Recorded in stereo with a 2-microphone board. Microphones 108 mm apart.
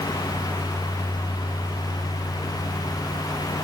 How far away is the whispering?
No whispering in this recording.